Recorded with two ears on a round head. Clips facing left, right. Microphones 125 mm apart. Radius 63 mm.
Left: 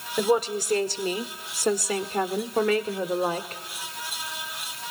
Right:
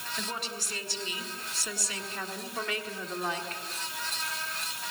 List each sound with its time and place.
0.2 s a woman speaking: 35° left (ahead or behind), 1.8 m; by 3.6 s 25° left (ahead or behind), 1.3 m